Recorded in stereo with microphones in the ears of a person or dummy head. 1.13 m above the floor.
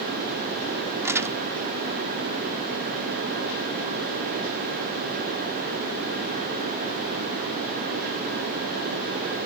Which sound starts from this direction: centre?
Crumpling, at 1.0 s.